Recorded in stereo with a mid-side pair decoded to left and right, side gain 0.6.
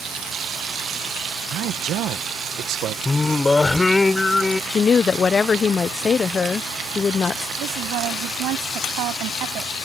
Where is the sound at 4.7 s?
30° left.